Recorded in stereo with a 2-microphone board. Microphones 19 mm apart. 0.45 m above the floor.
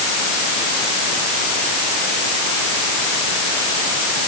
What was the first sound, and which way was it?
Only background noise.